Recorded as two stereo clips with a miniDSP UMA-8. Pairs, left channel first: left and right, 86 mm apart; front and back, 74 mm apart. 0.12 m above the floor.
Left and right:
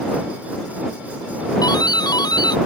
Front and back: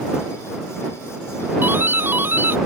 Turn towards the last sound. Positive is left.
turn(degrees=120)